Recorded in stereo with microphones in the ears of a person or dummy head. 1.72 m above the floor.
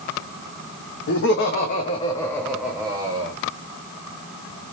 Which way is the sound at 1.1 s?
65° left (ahead or behind).